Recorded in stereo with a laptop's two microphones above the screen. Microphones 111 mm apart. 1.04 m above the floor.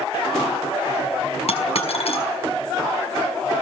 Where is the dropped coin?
65° left (ahead or behind), 5 m.